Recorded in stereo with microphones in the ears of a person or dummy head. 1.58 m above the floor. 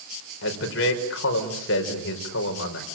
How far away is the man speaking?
About 5 m.